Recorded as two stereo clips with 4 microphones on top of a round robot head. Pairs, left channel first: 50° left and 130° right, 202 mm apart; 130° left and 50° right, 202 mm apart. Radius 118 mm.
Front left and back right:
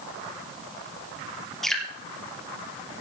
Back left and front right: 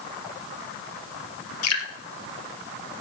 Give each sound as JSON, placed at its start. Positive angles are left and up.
{"t": 1.6, "sound": "dripping", "azimuth_deg": 135, "distance_m": 2.5}